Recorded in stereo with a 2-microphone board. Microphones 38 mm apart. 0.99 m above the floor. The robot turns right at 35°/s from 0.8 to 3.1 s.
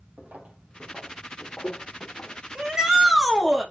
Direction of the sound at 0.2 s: 40° right (ahead or behind).